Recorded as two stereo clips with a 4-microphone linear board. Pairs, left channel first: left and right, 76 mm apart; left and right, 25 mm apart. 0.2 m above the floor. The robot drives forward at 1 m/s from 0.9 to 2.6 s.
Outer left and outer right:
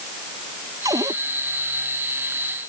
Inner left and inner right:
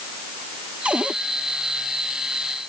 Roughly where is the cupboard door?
Right.